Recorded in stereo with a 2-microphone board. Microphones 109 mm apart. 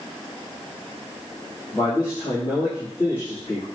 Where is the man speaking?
35° left (ahead or behind), 5 m.